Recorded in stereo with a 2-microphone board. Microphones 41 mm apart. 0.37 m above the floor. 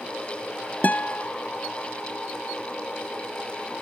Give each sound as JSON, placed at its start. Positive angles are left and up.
{"t": 0.8, "sound": "a guitar", "side_deg": 40}